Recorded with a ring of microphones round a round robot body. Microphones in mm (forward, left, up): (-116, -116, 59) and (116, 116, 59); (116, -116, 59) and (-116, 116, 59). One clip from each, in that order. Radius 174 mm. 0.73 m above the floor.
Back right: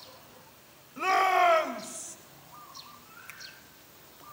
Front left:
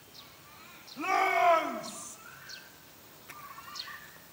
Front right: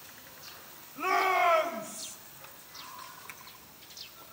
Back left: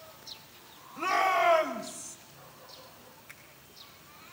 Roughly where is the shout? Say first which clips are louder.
Back right 3 dB, even; behind right.